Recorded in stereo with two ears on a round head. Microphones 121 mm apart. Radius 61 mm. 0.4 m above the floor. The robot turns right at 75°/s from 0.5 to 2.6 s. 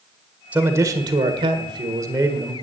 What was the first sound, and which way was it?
A man speaking, 160° right.